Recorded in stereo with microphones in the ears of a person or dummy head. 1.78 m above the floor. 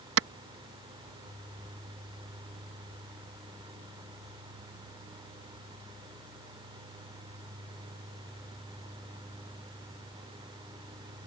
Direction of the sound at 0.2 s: 75° right (ahead or behind).